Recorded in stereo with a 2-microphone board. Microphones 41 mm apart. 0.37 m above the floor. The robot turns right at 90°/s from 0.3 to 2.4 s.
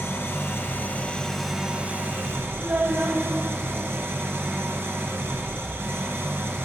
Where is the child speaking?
65° right (ahead or behind), 1.6 m.